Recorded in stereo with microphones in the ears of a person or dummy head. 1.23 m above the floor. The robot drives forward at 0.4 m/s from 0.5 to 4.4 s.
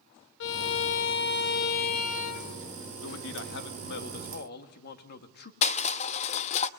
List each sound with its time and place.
0.4 s a violin: 70° left (ahead or behind), 0.9 m; by 2.8 s 40° left (ahead or behind), 1.2 m
3.0 s a man speaking: 75° left (ahead or behind), 1.5 m; by 5.5 s 60° left (ahead or behind), 1.8 m
5.6 s crushing: 35° left (ahead or behind), 0.8 m